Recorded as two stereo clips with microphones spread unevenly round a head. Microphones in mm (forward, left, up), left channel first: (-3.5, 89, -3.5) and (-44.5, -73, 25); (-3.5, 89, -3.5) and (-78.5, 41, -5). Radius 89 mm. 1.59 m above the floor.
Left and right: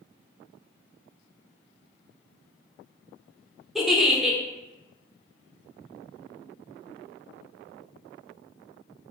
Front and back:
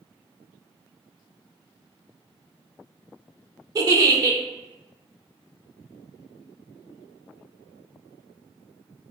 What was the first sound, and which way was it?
A giggle, 175° left.